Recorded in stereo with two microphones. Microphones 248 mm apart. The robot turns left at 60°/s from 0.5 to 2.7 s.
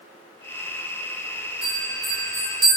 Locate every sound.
1.6 s a bell: 80° right, 1.2 m; by 2.8 s 145° right, 1.2 m